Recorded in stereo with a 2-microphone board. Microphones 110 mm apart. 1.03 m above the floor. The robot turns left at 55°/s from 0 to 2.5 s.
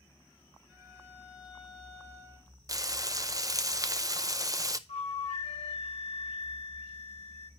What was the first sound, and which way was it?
A violin, 175° right.